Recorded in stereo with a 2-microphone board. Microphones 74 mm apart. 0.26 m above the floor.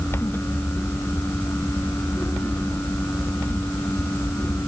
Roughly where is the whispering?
No whispering in this recording.